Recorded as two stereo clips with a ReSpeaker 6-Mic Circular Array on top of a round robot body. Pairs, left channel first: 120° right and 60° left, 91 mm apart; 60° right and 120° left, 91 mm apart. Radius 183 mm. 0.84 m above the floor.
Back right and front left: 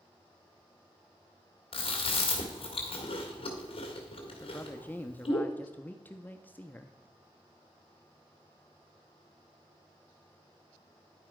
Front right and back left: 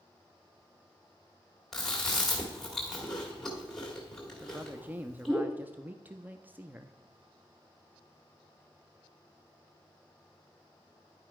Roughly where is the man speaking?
Behind.